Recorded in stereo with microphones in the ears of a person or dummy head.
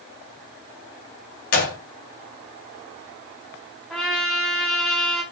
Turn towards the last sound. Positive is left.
turn(degrees=0)  # may be behind; listen again after turning